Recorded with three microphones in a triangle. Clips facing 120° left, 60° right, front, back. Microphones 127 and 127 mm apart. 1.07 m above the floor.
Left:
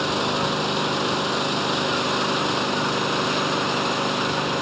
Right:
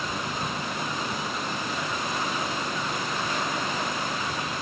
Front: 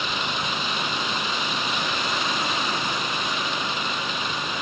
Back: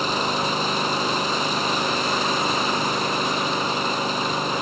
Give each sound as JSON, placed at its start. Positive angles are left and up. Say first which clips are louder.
{"t": 0.0, "sound": "an engine running", "louder": "left 8 dB, back 5 dB", "azimuth_deg": 130}